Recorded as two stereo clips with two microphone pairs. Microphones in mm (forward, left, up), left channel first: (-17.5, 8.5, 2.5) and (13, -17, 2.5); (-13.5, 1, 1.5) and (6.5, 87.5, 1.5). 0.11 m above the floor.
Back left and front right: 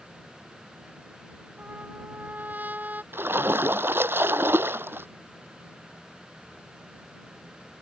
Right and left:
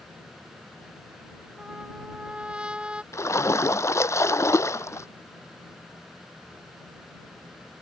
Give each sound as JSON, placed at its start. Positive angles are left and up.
{"t": 1.6, "sound": "a trumpet", "azimuth_deg": 0}
{"t": 3.1, "sound": "a splash", "azimuth_deg": -45}